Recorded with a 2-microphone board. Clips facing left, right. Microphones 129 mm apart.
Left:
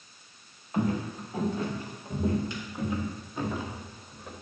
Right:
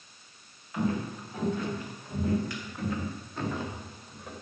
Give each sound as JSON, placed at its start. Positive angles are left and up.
{"t": 0.7, "sound": "footsteps", "side_deg": 40, "distance_m": 5.5}